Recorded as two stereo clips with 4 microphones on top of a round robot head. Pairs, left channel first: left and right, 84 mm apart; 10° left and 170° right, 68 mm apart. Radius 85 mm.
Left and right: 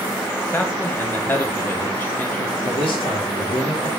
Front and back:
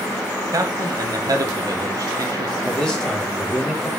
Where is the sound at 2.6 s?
90° left, 3 m.